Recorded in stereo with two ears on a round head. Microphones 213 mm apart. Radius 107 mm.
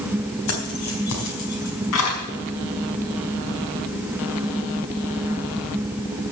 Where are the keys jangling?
75° left (ahead or behind), 3.5 m; by 2.2 s 65° left (ahead or behind), 5 m.